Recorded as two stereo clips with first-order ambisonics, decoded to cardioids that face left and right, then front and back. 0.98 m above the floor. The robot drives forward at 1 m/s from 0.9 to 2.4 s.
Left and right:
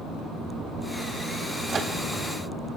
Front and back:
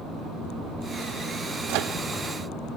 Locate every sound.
1.7 s a microwave: 160° right, 1.4 m